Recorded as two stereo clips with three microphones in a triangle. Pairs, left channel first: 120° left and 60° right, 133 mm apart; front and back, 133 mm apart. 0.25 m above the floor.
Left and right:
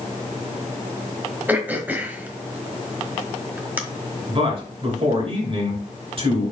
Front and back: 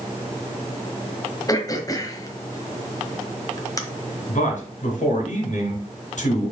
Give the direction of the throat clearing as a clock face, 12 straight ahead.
12 o'clock.